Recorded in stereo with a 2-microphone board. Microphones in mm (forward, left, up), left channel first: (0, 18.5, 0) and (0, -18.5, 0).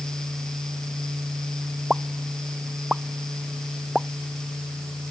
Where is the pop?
10° right (ahead or behind).